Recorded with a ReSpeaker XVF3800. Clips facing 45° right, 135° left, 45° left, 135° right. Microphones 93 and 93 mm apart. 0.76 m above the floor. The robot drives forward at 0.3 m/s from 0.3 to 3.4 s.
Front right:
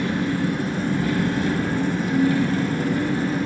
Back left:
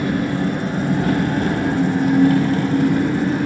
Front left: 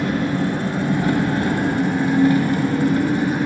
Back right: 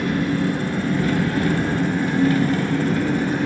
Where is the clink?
I don't hear a clink.